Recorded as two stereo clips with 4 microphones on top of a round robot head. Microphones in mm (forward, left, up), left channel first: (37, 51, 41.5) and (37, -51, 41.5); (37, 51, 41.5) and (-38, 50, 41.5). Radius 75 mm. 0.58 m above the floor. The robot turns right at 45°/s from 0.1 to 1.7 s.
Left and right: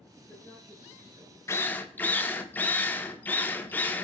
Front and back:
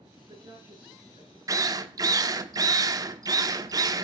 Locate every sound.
0.2 s a woman speaking: 150° left, 8 m; by 1.4 s 155° right, 8 m
1.5 s a drill: 150° left, 1.0 m; by 4.0 s 160° left, 1.0 m